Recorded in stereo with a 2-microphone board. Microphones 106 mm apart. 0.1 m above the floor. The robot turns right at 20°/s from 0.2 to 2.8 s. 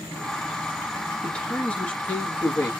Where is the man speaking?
10° left (ahead or behind), 1.3 m; by 2.7 s 25° left (ahead or behind), 1.3 m.